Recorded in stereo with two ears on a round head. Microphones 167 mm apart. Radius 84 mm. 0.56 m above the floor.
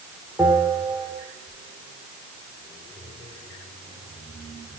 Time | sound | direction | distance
0.4 | a bell | 10° right (ahead or behind) | 2 m